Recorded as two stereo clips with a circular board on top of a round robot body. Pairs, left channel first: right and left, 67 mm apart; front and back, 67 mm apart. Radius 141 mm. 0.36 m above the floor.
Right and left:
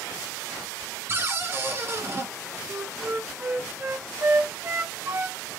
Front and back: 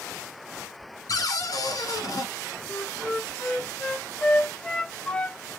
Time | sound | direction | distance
1.1 | a cupboard door | 35° left | 2 m
2.7 | a flute | 60° left | 1.0 m